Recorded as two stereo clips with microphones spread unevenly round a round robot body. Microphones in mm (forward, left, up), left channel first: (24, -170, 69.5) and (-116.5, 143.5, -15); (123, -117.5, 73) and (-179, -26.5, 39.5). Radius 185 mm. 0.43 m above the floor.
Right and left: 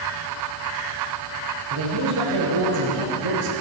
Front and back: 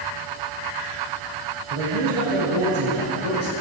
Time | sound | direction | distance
1.7 | a man speaking | 150° left | 8 m